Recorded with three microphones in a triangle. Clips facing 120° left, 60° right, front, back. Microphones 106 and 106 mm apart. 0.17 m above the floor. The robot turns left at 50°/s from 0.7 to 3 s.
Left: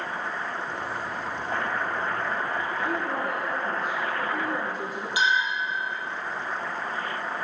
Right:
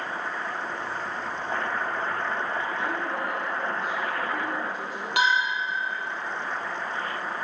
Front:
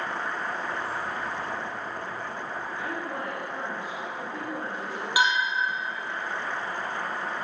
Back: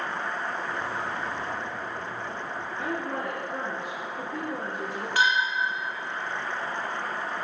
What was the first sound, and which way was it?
A woman speaking, 140° right.